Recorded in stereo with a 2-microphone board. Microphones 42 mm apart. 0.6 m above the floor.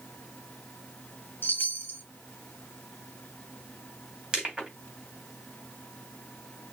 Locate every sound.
1.4 s a chime: 55° left (ahead or behind), 0.9 m
4.3 s crushing: 25° right (ahead or behind), 2.5 m